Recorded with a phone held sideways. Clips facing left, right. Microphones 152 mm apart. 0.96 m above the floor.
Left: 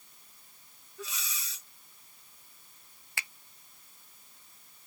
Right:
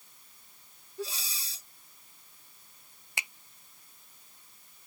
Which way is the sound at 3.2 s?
20° right (ahead or behind).